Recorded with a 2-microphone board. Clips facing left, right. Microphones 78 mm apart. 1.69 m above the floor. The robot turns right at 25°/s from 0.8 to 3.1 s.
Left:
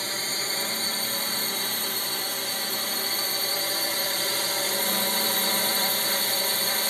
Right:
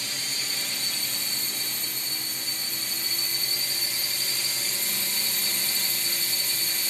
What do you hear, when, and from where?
0.0 s a drone: 50° left; by 6.9 s 110° left